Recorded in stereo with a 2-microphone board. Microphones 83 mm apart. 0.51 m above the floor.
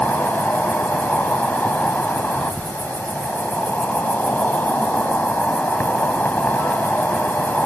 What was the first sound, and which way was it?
An insect, 20° left (ahead or behind).